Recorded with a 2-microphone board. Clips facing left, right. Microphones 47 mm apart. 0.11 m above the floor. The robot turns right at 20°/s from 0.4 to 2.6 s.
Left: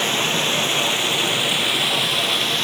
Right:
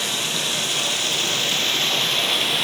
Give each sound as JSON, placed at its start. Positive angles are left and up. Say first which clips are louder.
{"t": 0.0, "sound": "running water", "louder": "left 5 dB", "azimuth_deg": 140, "distance_m": 0.8}